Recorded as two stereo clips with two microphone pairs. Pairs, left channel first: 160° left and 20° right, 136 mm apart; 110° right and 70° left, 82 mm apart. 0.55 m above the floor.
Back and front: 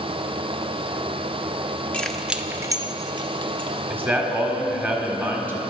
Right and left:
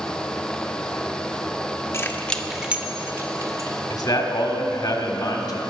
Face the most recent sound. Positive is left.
turn(degrees=-90)